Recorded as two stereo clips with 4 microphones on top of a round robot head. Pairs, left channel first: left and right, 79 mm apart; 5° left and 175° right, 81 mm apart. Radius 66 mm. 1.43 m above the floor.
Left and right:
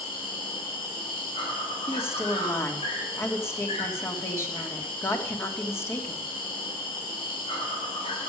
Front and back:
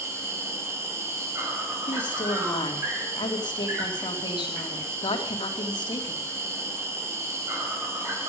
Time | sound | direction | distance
0.0 | an insect | 130° left | 4.5 m
1.9 | a woman speaking | 35° left | 3 m